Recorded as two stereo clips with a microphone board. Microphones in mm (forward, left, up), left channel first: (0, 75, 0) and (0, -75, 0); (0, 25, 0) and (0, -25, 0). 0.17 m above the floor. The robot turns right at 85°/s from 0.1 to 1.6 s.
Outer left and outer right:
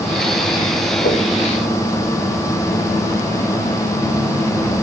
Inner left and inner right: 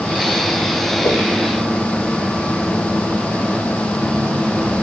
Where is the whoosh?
85° left, 3.5 m; by 1.2 s 75° left (ahead or behind), 3.5 m.